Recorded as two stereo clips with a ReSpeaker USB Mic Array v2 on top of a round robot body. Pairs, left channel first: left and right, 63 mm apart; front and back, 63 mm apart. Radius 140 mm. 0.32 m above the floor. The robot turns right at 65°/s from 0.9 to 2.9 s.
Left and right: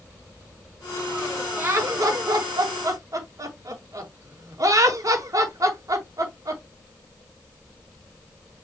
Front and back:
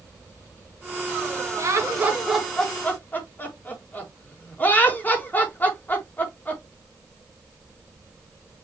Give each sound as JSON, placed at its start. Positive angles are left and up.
{"t": 1.6, "sound": "laughter", "azimuth_deg": -150, "distance_m": 5.0}